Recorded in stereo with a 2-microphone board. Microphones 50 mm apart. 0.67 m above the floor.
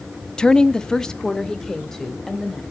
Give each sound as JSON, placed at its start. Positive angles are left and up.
{"t": 0.4, "sound": "a woman speaking", "side_deg": 15, "distance_m": 0.5}